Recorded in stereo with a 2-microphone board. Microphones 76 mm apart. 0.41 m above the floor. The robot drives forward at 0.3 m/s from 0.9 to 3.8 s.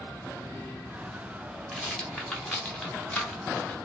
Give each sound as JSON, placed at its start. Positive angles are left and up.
{"t": 1.7, "sound": "a rattle", "side_deg": 10, "distance_m": 1.6}